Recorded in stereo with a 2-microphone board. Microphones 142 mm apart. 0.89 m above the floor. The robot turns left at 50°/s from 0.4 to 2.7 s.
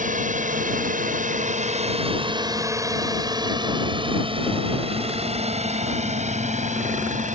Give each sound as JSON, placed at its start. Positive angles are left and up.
{"t": 0.0, "sound": "a drone", "side_deg": -65}